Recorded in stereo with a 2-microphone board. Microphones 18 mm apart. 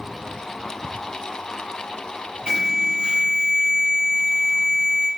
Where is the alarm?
55° right (ahead or behind), 3.5 m.